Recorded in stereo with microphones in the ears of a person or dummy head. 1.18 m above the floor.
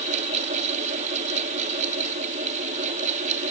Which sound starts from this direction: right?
A fan, at 0.0 s.